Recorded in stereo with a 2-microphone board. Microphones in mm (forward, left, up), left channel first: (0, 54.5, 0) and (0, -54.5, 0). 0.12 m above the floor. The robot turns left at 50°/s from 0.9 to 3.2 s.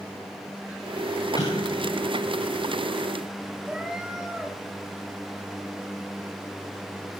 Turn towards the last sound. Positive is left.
turn(degrees=-5)  # may be behind; listen again after turning